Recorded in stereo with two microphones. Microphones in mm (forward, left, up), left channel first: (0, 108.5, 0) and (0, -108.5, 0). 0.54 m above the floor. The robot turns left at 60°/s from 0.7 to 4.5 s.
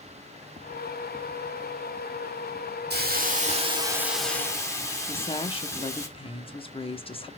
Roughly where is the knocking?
I don't hear knocking.